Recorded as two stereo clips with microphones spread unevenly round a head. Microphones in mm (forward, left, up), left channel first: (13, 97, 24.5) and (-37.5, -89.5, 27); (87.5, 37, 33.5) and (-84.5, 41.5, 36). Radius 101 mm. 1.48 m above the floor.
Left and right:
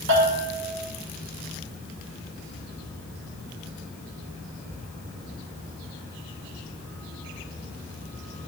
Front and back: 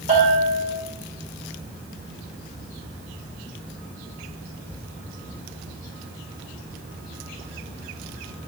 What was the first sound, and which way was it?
A bell, 125° right.